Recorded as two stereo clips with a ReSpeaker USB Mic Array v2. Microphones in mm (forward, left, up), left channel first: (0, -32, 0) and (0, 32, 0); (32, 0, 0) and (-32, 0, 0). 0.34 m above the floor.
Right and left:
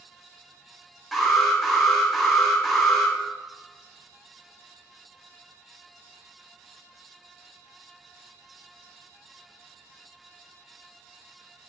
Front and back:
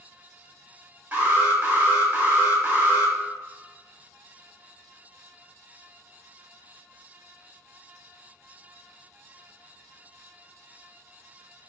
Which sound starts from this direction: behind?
An alarm, at 1.1 s.